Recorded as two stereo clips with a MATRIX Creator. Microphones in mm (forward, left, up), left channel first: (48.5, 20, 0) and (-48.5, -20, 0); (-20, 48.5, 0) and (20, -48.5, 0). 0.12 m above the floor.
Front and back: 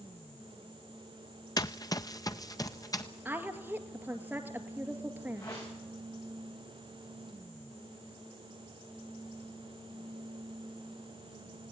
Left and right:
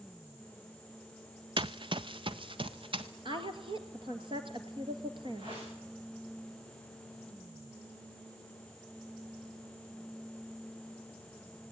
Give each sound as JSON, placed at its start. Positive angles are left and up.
{"t": 1.6, "sound": "running footsteps", "azimuth_deg": -30, "distance_m": 0.5}
{"t": 3.2, "sound": "a woman speaking", "azimuth_deg": -85, "distance_m": 2.0}
{"t": 5.4, "sound": "a whoosh", "azimuth_deg": -30, "distance_m": 7.5}